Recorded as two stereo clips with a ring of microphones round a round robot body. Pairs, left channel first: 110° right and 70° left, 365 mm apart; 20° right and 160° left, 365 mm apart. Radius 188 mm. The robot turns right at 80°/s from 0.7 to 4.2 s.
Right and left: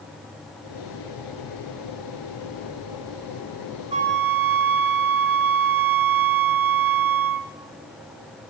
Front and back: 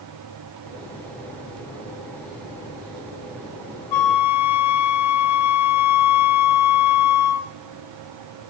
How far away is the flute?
About 1.2 m.